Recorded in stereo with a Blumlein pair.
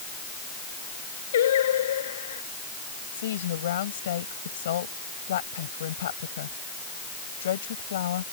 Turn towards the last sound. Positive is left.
turn(degrees=60)